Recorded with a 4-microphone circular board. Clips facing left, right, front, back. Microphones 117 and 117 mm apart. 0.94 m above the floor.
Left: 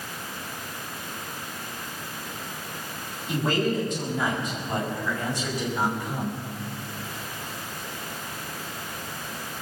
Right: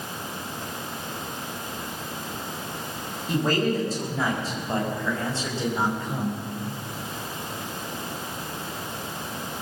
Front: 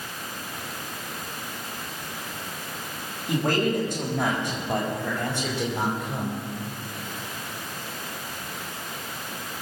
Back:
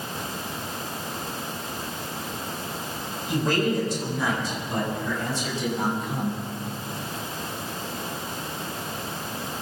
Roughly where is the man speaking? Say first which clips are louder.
Right 1 dB, even; ahead right.